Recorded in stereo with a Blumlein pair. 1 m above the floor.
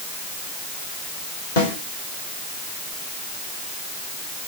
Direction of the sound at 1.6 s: 55° left.